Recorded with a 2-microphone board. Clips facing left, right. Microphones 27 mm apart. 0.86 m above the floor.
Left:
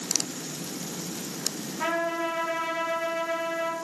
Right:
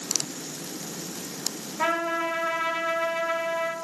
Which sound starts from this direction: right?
A trumpet, at 1.8 s.